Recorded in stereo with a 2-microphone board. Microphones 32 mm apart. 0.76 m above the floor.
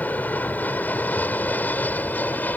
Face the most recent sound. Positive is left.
turn(degrees=65)  # may be behind; listen again after turning